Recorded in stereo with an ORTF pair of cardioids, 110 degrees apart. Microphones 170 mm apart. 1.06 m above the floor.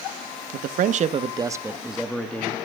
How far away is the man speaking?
About 1.1 m.